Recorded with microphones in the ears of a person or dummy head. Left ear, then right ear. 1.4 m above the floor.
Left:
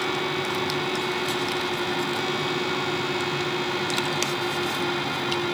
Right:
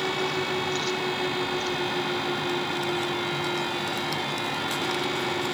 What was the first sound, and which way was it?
Only background noise.